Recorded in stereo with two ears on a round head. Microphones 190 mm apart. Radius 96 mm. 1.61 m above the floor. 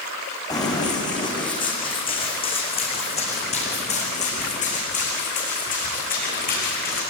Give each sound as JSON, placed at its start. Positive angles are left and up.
{"t": 0.5, "sound": "running footsteps", "side_deg": 20, "distance_m": 6.5}